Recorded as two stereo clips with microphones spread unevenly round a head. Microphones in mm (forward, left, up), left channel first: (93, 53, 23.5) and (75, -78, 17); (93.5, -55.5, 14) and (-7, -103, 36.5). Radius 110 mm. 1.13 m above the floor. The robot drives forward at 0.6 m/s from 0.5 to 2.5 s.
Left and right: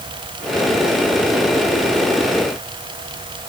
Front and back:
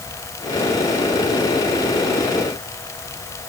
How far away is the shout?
I don't hear a shout.